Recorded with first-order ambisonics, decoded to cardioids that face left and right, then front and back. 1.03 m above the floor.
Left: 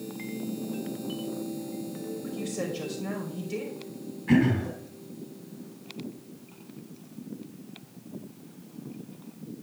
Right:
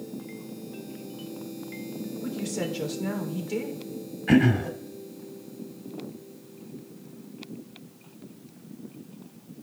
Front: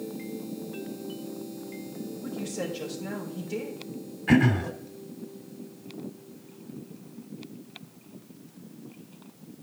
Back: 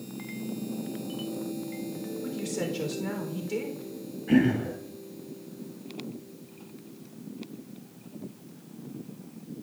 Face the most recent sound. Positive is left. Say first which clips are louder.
# right 3 dB, front 1 dB
turn(degrees=-45)